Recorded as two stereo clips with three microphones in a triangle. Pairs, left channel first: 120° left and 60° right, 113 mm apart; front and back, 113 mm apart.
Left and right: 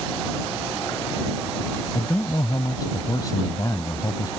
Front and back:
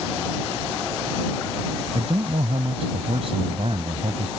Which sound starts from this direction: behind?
A man speaking, at 1.9 s.